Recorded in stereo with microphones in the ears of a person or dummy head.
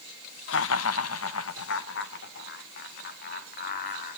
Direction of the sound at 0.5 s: 65° left (ahead or behind).